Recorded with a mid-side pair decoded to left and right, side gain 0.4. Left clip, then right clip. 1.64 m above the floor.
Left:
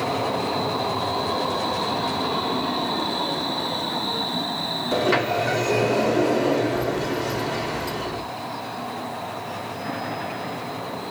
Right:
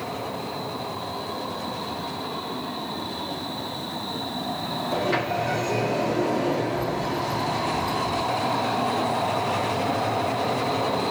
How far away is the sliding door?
About 3.5 m.